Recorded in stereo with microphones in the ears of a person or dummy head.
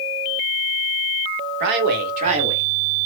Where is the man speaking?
65° right (ahead or behind), 1.5 m; by 2.6 s 25° right (ahead or behind), 1.9 m.